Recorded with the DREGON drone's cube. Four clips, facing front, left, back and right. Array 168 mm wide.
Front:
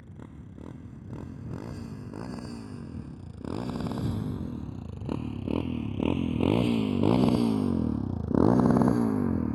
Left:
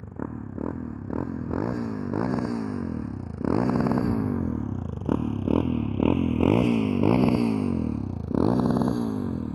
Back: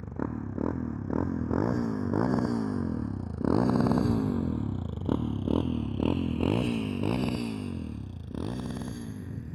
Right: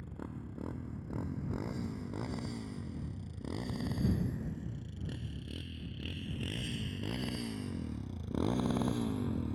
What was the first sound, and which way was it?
A motorcycle, 140° left.